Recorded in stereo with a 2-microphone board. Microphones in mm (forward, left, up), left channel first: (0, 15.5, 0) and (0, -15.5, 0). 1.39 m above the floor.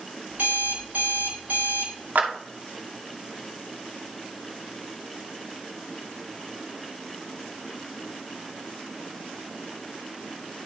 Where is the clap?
70° right (ahead or behind), 2.5 m.